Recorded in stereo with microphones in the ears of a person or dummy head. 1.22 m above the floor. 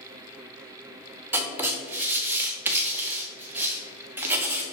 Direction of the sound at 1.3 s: 15° right (ahead or behind).